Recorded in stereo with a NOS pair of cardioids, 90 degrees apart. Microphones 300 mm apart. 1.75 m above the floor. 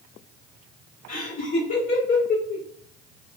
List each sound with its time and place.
1.1 s laughter: 45° left, 1.7 m